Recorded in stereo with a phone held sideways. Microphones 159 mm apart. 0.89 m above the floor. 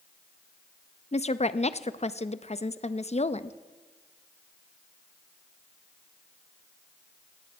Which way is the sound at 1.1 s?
45° left (ahead or behind).